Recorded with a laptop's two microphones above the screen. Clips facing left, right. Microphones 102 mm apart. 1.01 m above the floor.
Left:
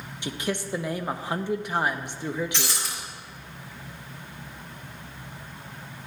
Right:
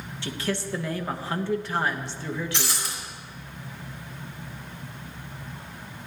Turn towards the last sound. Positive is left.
turn(degrees=0)  # may be behind; listen again after turning